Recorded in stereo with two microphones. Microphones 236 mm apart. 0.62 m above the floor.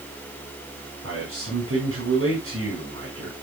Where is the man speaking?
70° right (ahead or behind), 5.5 m.